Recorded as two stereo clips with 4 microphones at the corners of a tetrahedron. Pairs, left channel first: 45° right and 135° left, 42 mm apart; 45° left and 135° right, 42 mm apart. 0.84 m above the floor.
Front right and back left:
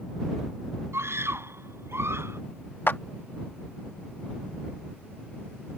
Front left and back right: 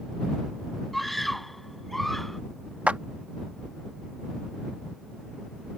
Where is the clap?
75° right.